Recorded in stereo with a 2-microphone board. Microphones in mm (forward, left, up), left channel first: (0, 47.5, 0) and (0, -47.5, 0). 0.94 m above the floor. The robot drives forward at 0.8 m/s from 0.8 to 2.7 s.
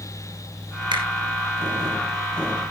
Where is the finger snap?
55° right (ahead or behind), 5 m.